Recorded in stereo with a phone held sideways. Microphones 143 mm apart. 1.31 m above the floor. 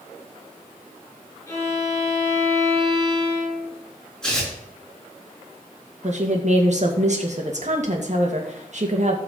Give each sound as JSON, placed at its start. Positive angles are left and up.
{"t": 1.5, "sound": "a violin", "side_deg": 15, "distance_m": 5.5}
{"t": 4.2, "sound": "tearing paper", "side_deg": 5, "distance_m": 6.0}
{"t": 6.0, "sound": "a woman speaking", "side_deg": -55, "distance_m": 2.0}